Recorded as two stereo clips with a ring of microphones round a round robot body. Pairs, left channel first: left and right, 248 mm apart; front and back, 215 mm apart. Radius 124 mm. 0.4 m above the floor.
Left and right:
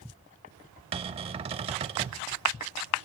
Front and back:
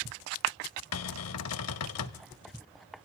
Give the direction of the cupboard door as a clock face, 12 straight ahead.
1 o'clock.